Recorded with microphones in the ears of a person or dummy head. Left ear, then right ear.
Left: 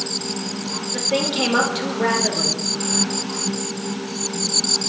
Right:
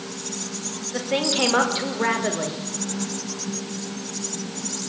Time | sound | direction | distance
0.9 | a woman speaking | 15° right (ahead or behind) | 4 m